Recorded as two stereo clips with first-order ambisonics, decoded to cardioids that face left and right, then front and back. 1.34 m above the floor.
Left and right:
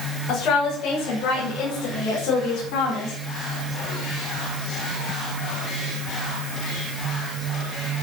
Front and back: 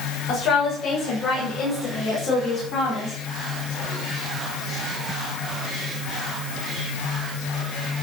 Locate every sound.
0.3 s a woman speaking: 50° left, 7 m; by 3.2 s 60° left, 4.5 m